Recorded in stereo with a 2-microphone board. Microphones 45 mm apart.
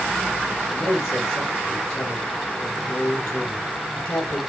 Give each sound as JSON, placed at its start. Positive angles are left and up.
{"t": 0.7, "sound": "a man speaking", "side_deg": 70, "distance_m": 6.0}